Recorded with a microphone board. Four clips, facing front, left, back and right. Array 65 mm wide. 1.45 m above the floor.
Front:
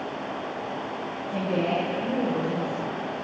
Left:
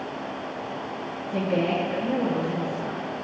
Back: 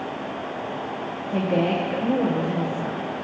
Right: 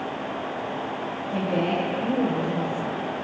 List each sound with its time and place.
1.3 s a woman speaking: 175° left, 1.2 m